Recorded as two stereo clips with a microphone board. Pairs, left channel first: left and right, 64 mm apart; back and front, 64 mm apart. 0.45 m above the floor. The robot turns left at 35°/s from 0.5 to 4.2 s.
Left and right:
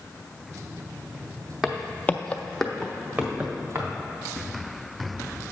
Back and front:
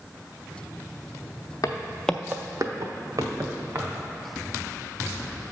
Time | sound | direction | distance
1.6 | footsteps | 175° right | 0.8 m